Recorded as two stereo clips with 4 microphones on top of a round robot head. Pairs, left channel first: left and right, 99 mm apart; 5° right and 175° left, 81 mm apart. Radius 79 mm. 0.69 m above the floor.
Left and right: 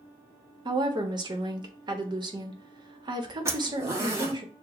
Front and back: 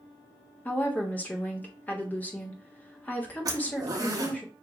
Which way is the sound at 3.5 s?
150° right.